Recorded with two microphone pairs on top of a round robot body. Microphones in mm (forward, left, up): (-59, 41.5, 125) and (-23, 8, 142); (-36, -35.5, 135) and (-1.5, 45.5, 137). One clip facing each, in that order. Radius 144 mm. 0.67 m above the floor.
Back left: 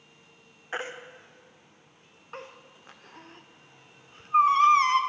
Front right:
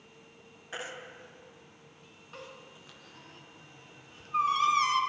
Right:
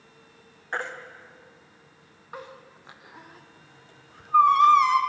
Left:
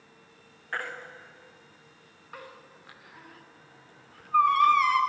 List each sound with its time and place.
0.7 s a baby crying: straight behind, 1.6 m